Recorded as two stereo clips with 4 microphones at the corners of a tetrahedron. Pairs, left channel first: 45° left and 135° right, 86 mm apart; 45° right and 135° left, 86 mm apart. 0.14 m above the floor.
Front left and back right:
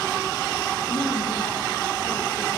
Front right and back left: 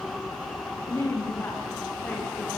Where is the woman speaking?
15° left, 9 m; by 2.6 s 25° left, 10.5 m.